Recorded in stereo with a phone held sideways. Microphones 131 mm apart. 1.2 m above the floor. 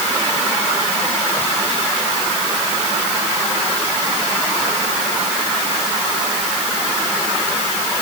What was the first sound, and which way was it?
Only background noise.